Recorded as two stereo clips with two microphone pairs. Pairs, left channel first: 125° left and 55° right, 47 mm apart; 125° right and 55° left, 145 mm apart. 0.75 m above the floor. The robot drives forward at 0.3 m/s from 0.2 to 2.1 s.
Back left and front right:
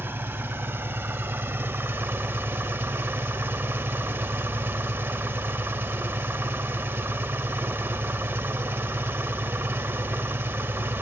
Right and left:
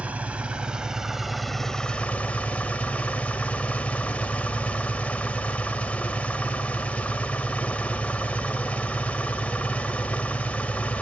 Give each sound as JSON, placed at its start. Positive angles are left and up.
{"t": 0.0, "sound": "an engine running", "azimuth_deg": -25, "distance_m": 1.1}